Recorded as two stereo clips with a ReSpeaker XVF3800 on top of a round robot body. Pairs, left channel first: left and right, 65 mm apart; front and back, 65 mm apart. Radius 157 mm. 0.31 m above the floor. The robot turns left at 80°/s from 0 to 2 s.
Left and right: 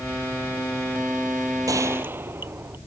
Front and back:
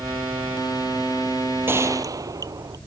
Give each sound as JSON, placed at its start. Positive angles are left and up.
{"t": 1.7, "sound": "a gunshot", "azimuth_deg": -125}